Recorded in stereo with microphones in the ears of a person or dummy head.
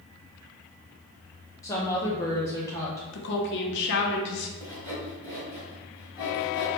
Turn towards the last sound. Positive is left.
turn(degrees=20)  # may be behind; listen again after turning